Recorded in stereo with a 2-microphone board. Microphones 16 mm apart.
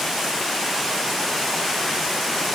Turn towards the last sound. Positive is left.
No sound to turn to.